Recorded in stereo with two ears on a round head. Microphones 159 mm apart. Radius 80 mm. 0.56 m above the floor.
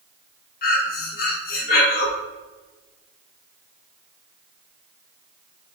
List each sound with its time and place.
0.6 s breathing: 55° left (ahead or behind), 0.9 m